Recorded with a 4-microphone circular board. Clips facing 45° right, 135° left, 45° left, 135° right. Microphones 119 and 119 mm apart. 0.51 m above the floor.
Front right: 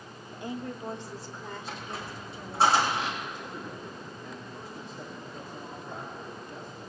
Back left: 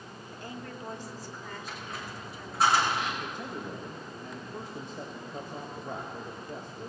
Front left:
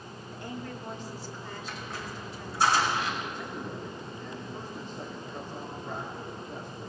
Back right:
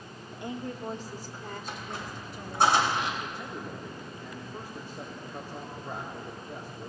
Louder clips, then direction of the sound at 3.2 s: Back left 1 dB, front left 1 dB; 150° left.